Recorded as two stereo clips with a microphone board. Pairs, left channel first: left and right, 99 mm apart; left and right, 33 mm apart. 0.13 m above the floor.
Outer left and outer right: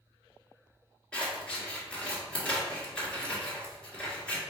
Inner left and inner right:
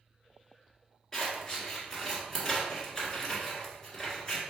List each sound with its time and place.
1.1 s scissors: 10° left (ahead or behind), 1.9 m